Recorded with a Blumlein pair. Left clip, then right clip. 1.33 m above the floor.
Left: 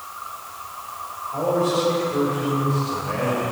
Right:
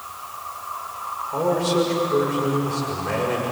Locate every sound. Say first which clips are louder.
1.3 s a man speaking: even; 60° right, 6 m